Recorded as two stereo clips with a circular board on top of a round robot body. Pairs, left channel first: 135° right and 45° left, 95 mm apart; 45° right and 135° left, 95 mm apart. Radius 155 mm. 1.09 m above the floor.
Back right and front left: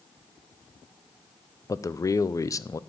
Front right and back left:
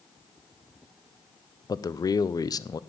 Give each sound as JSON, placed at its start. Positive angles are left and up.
{"t": 1.7, "sound": "a man speaking", "azimuth_deg": -85, "distance_m": 0.5}